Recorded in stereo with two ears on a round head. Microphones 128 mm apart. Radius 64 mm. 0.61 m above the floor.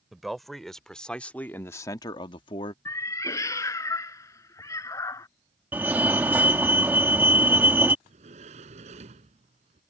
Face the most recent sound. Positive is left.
turn(degrees=-50)  # may be behind; listen again after turning